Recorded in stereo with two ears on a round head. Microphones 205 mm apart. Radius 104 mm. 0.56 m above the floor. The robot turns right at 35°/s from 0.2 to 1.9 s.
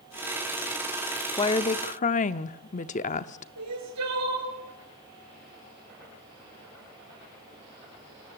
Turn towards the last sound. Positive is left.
turn(degrees=-85)